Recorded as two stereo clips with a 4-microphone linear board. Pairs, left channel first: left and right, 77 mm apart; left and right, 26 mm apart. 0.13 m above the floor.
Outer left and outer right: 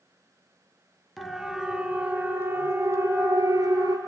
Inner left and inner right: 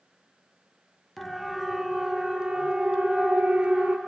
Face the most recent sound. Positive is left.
turn(degrees=-50)  # may be behind; listen again after turning